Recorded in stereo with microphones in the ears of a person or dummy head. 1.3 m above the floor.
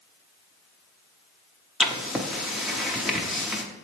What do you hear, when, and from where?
1.8 s writing: centre (ahead or behind), 0.6 m